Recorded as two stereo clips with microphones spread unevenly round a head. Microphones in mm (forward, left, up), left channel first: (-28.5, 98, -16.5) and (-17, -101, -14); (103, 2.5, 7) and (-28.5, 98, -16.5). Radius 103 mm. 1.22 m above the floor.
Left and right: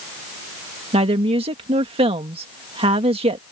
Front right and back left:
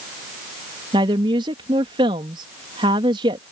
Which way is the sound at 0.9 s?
150° right.